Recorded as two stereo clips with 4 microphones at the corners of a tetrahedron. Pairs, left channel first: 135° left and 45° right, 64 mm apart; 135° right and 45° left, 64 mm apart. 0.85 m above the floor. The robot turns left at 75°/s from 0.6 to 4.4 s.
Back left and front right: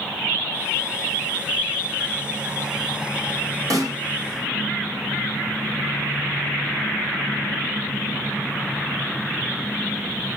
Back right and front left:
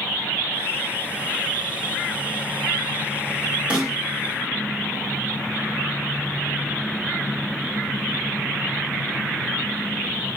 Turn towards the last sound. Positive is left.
turn(degrees=-80)